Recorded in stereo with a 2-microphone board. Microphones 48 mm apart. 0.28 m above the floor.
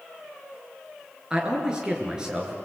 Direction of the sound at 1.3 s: 20° right (ahead or behind).